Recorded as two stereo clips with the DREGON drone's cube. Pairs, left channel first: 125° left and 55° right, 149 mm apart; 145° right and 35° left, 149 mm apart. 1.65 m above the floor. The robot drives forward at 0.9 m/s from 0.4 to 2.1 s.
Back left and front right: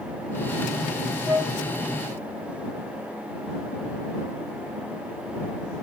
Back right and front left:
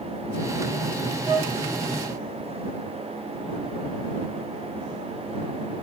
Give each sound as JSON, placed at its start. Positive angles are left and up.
{"t": 1.2, "sound": "a flute", "azimuth_deg": 5, "distance_m": 8.5}